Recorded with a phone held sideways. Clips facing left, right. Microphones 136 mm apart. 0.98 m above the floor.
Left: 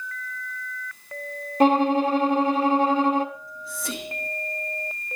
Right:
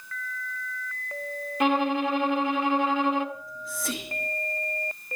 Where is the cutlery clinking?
No cutlery clinking in this recording.